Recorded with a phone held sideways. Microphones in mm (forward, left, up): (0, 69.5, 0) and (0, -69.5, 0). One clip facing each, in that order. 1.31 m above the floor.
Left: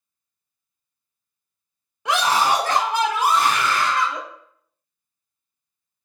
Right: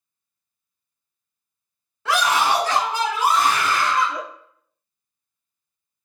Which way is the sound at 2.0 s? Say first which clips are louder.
Even; 15° left (ahead or behind).